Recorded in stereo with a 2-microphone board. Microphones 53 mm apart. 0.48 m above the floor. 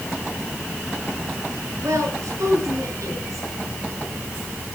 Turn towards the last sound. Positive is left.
turn(degrees=-80)